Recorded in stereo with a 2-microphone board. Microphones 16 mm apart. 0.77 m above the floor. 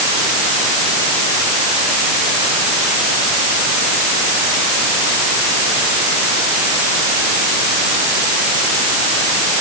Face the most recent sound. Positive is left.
No sound to turn to.